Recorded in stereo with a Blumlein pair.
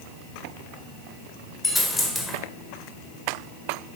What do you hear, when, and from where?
1.6 s a dropped coin: 5° left, 2 m